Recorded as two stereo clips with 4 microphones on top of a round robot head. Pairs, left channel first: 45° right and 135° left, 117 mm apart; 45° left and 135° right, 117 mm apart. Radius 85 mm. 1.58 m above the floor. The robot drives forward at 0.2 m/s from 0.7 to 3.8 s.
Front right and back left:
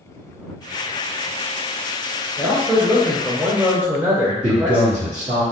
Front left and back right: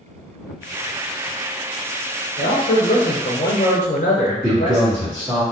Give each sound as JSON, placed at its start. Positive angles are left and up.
{"t": 2.4, "sound": "a man speaking", "azimuth_deg": 35, "distance_m": 0.7}
{"t": 4.4, "sound": "a man speaking", "azimuth_deg": 155, "distance_m": 1.3}